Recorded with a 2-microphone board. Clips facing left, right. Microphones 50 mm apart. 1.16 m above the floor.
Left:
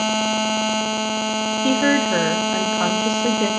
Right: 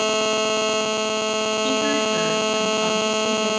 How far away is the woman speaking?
About 1.4 m.